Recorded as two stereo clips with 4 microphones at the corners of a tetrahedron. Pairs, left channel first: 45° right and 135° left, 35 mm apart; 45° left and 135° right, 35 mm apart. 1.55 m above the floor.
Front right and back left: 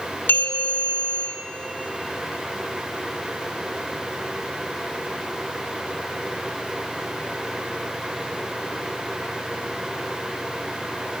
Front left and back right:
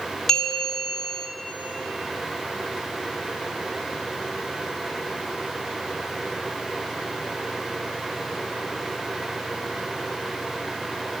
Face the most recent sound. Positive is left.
turn(degrees=-40)